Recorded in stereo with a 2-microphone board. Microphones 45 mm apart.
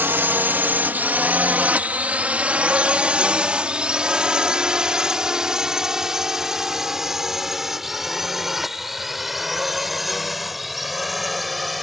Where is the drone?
50° right (ahead or behind); by 11.8 s centre (ahead or behind).